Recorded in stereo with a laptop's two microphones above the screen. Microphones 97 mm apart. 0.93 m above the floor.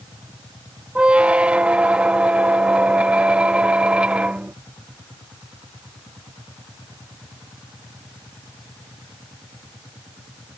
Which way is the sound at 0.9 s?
15° right (ahead or behind).